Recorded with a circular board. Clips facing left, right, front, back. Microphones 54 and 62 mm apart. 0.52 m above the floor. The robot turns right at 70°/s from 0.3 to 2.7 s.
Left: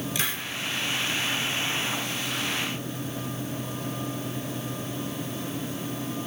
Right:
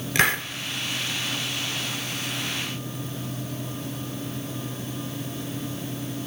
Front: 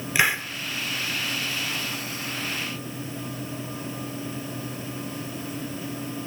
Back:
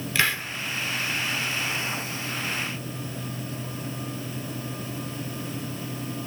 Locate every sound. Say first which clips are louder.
0.1 s a hiss: right 13 dB, front 3 dB; 70° right, 0.6 m; by 0.5 s 60° right, 0.6 m